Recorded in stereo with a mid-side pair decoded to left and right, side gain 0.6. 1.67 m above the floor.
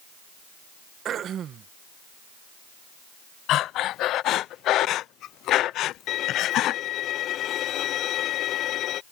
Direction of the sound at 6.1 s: 55° left.